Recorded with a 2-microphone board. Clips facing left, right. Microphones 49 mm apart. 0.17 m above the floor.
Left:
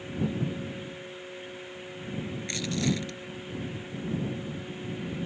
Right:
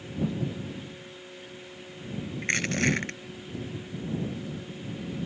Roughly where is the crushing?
Right.